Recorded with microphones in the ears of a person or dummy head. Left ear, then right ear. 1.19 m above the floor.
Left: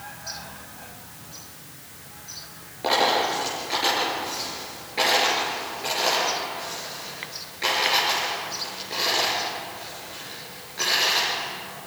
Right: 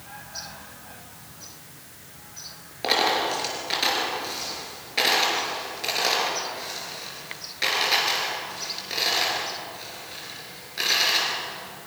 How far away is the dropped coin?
About 5.5 m.